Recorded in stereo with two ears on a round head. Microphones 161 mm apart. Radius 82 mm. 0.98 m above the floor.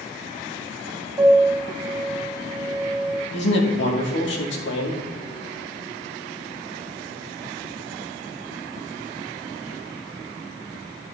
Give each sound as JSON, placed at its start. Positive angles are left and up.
{"t": 1.2, "sound": "a piano", "side_deg": -15, "distance_m": 2.5}
{"t": 3.3, "sound": "a man speaking", "side_deg": 70, "distance_m": 2.5}